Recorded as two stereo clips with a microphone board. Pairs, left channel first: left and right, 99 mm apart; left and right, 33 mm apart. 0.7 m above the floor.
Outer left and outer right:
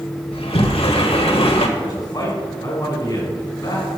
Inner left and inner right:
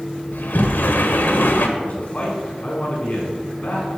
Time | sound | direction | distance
0.3 | a sliding door | 75° left (ahead or behind) | 1.5 m
1.8 | a man speaking | 45° left (ahead or behind) | 5.5 m